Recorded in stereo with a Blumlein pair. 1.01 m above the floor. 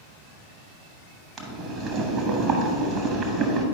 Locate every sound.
1.4 s boiling: 30° right, 1.1 m